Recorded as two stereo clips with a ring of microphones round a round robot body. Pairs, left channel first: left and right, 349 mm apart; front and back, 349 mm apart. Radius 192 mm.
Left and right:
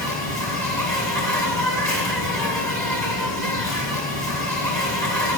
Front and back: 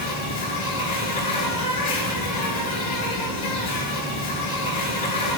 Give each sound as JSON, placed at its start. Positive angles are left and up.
{"t": 0.0, "sound": "an insect", "azimuth_deg": 10, "distance_m": 5.0}